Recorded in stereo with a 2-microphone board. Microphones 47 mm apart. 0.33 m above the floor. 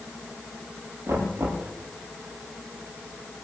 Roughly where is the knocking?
Right.